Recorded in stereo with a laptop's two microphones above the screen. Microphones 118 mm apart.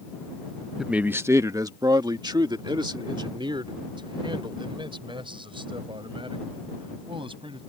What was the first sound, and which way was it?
A man speaking, 5° right (ahead or behind).